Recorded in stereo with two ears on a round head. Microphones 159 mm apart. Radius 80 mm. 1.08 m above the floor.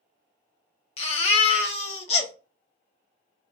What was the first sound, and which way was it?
A baby crying, 35° left (ahead or behind).